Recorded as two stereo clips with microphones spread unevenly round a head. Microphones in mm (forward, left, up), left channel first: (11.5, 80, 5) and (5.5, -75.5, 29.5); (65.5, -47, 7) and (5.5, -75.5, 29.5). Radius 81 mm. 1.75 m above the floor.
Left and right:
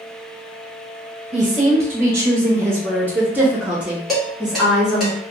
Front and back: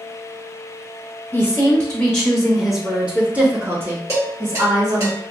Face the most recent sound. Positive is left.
turn(degrees=-175)